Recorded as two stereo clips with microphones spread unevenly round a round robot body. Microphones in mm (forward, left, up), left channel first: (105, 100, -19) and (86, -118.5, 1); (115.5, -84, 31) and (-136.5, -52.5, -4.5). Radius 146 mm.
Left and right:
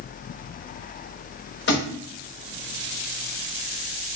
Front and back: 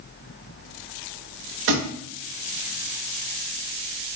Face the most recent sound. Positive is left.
turn(degrees=135)